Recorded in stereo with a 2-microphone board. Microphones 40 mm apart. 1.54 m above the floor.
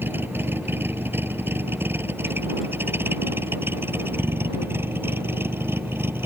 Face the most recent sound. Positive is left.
turn(degrees=-75)  # may be behind; listen again after turning